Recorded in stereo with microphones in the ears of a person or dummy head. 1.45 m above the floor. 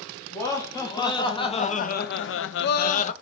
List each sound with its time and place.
0.3 s laughter: 15° left (ahead or behind), 1.5 m; by 3.1 s 35° left (ahead or behind), 0.7 m